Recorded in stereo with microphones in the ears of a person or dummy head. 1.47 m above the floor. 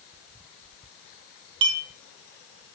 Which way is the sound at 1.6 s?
30° right (ahead or behind).